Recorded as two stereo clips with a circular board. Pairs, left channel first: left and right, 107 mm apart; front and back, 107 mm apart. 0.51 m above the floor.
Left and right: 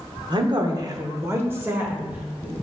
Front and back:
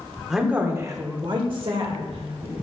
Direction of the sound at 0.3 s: 95° right.